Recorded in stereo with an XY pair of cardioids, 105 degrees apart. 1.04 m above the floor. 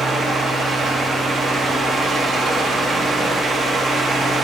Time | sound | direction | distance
0.0 | a fan | 35° right | 1.3 m